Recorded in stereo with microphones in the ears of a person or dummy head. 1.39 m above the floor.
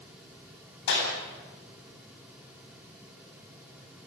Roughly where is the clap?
Left.